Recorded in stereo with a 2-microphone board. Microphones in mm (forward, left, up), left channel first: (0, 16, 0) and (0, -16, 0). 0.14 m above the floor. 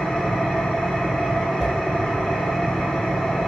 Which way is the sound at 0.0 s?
45° left (ahead or behind).